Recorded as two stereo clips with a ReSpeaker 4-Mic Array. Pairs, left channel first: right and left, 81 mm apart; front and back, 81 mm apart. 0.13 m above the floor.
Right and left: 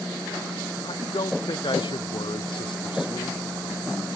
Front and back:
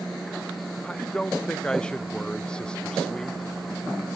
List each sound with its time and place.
0.8 s a man speaking: 80° right